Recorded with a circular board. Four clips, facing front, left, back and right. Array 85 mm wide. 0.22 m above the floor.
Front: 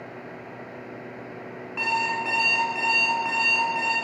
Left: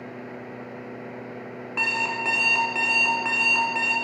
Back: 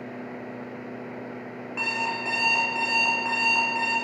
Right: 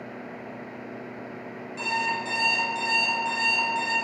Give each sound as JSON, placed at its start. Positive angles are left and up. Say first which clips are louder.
{"t": 1.8, "sound": "an alarm clock", "louder": "even, front 4 dB", "azimuth_deg": 85, "distance_m": 1.2}